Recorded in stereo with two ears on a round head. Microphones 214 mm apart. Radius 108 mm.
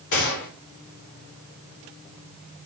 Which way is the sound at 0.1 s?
80° left.